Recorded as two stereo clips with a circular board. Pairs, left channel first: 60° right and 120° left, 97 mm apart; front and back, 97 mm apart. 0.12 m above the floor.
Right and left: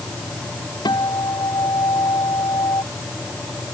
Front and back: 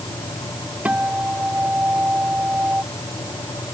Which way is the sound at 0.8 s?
105° right.